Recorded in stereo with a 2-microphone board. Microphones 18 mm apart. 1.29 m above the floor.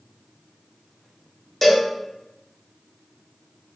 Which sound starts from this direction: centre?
A cowbell, at 1.6 s.